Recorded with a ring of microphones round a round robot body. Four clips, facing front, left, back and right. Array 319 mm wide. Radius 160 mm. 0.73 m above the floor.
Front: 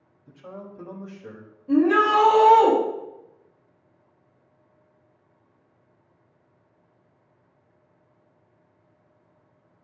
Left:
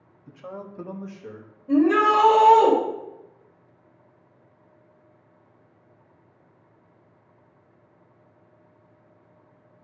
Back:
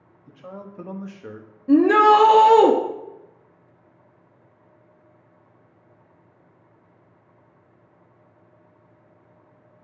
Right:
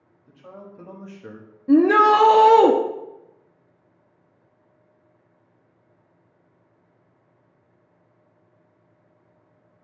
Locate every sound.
0.3 s a man speaking: 115° left, 1.5 m; by 1.5 s 135° right, 1.2 m
1.7 s a shout: 130° right, 0.8 m